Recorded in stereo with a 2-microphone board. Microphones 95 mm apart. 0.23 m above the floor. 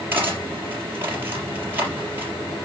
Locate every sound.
0.1 s cutlery clinking: 20° right (ahead or behind), 4 m